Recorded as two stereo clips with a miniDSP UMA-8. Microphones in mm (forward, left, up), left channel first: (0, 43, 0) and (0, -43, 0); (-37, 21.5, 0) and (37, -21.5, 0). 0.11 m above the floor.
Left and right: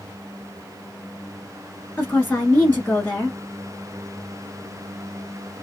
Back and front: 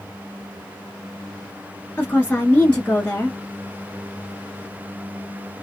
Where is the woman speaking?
115° left, 1.1 m.